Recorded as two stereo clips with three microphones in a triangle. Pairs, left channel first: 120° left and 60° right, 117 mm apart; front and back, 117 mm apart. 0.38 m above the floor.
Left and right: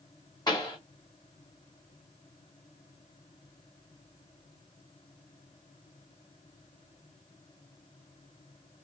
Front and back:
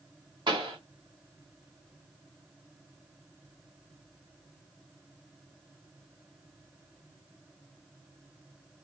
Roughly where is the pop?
Behind left.